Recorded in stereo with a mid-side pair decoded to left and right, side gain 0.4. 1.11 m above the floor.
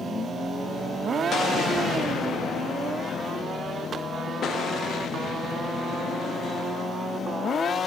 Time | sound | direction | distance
1.3 | an explosion | 60° left | 0.9 m